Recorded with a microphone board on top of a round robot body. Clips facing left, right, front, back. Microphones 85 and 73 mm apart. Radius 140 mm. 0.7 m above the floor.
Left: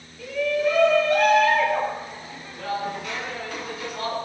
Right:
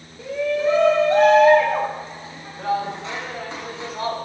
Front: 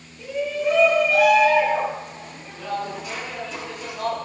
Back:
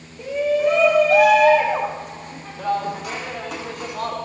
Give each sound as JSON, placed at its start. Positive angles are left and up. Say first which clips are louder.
{"t": 0.2, "sound": "a shout", "louder": "right 1 dB, back 5 dB", "azimuth_deg": -150, "distance_m": 6.0}